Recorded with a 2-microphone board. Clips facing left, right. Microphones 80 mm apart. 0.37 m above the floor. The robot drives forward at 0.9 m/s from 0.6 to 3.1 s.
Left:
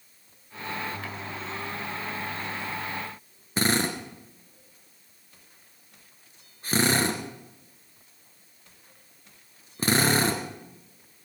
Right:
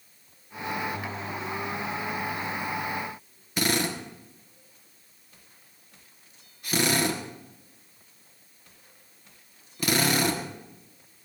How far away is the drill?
About 2.5 m.